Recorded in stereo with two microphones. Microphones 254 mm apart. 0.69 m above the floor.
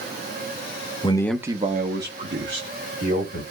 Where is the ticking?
No ticking in this recording.